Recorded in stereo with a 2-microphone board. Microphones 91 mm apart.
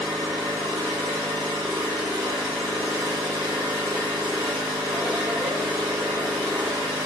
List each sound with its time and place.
0.0 s an engine running: 55° right (ahead or behind), 1.9 m